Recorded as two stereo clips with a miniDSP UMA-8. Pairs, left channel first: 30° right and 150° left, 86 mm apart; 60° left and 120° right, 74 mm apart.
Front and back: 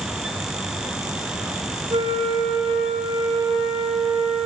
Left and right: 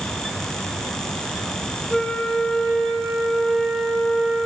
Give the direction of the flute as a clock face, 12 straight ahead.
7 o'clock.